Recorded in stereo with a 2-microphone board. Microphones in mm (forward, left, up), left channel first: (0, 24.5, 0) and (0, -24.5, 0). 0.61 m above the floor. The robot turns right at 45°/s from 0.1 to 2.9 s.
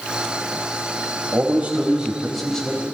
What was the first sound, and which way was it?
A man speaking, 45° right.